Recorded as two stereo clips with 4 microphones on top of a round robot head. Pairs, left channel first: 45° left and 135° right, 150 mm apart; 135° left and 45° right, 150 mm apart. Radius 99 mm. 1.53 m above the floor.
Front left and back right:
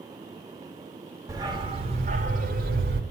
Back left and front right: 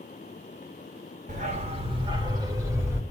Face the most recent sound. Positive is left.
turn(degrees=-120)